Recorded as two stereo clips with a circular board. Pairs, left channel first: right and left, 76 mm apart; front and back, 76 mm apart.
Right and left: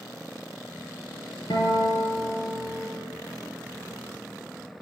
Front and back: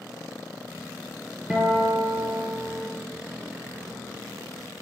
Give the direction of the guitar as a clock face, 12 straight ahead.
3 o'clock.